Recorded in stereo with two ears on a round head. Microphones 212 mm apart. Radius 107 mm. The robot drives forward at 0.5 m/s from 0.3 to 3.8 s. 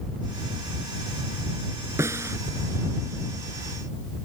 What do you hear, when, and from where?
2.0 s a snare drum: 10° right (ahead or behind)